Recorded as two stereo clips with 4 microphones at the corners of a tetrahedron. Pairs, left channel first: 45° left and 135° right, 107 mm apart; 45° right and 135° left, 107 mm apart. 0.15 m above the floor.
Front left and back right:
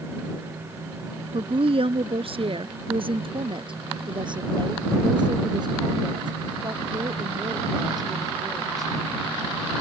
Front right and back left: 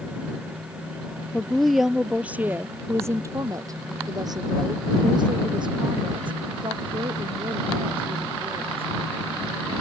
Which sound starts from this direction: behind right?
A woman speaking, at 1.3 s.